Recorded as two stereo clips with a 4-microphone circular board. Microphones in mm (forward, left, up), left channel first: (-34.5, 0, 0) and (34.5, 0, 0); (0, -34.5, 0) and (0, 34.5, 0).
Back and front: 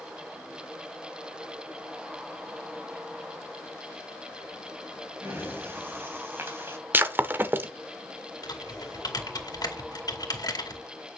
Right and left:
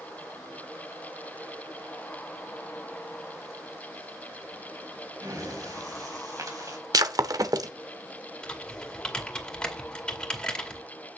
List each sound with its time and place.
5.2 s breathing: 60° left, 4 m
6.9 s breaking glass: 60° left, 0.9 m
8.4 s typing on a keyboard: 165° right, 2 m